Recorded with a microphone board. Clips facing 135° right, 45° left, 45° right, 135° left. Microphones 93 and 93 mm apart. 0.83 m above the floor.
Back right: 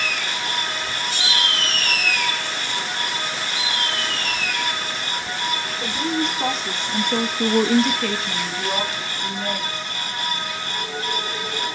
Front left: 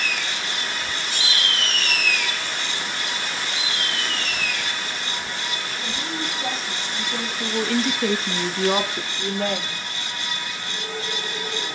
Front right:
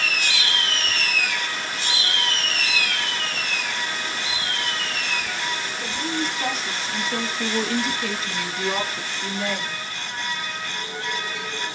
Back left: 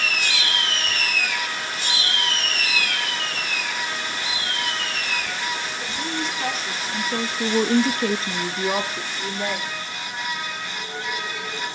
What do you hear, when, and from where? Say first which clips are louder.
5.8 s a woman speaking: back right 8 dB, front right 4 dB; 130° right, 3 m; by 9.8 s 65° left, 3 m